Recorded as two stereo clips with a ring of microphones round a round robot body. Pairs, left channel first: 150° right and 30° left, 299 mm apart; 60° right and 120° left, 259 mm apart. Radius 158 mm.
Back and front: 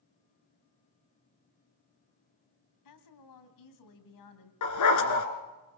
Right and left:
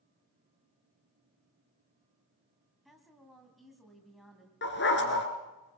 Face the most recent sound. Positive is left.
turn(degrees=-115)